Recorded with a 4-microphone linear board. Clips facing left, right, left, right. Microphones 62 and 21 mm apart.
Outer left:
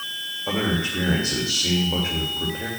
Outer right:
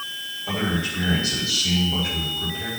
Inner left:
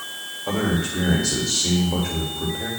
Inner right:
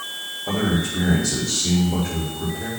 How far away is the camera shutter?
No camera shutter in this recording.